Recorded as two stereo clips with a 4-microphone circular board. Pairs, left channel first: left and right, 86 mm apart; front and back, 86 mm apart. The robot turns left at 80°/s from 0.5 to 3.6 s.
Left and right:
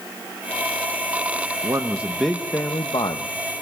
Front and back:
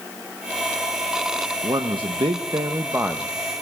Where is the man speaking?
135° right, 0.9 m; by 3.6 s 65° left, 0.9 m.